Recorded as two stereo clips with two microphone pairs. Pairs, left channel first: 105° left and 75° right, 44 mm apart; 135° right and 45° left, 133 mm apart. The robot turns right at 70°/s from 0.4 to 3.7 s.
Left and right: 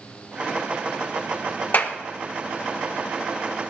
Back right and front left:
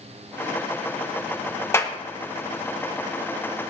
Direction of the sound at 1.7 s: 155° left.